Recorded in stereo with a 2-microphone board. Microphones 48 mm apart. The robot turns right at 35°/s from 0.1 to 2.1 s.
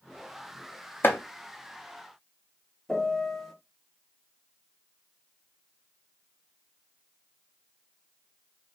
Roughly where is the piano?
Centre.